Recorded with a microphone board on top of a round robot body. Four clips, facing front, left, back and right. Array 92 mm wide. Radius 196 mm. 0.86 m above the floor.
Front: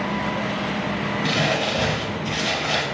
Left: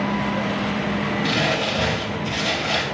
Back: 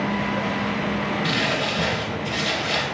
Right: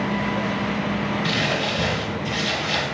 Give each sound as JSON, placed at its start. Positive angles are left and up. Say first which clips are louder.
{"t": 1.2, "sound": "crumpling", "louder": "left 2 dB, front 1 dB", "azimuth_deg": 35, "distance_m": 1.1}